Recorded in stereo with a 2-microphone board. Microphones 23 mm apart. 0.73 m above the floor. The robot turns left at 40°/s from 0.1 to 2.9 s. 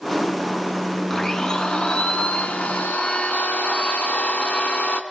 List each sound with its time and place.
1.1 s a blender: 165° left, 2 m; by 5.0 s 95° left, 2 m